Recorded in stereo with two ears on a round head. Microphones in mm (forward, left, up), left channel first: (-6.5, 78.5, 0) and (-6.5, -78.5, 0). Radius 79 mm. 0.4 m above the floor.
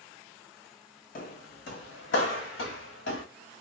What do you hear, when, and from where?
1.1 s footsteps: 50° left (ahead or behind), 1.0 m; by 3.2 s 75° left (ahead or behind), 2.0 m